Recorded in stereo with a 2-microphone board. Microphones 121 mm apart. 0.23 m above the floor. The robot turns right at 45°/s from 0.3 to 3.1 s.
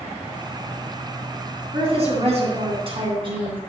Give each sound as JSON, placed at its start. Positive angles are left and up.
{"t": 1.7, "sound": "a woman speaking", "azimuth_deg": -115, "distance_m": 2.5}